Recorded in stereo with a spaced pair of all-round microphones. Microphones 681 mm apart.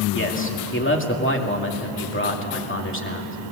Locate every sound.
0.1 s a man speaking: 15° left (ahead or behind), 2.5 m